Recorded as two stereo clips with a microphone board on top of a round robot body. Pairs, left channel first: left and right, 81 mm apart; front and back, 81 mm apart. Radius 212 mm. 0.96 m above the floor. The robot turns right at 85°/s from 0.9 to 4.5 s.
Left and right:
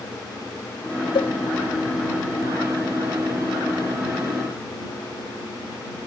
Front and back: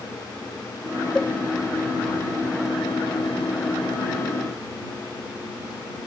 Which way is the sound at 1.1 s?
80° left.